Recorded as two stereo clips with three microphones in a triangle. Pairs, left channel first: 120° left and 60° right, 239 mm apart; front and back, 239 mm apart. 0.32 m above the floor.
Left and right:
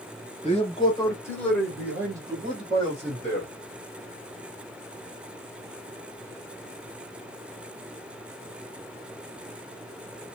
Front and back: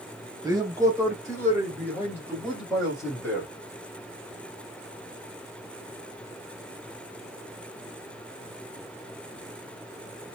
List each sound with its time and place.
0.4 s a man speaking: 120° left, 1.5 m; by 3.5 s 90° right, 1.9 m